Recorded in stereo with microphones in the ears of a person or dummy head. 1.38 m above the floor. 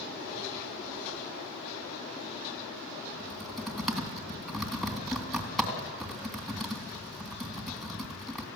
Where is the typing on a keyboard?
Centre (ahead or behind), 3 m.